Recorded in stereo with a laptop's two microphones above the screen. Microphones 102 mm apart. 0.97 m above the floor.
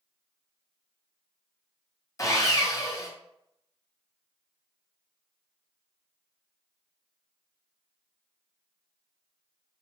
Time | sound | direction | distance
2.2 | sawing | 35° left (ahead or behind) | 0.8 m